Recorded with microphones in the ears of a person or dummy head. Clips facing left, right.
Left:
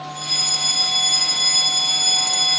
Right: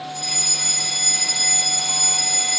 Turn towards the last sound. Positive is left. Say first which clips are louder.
# even
turn(degrees=5)  # may be behind; listen again after turning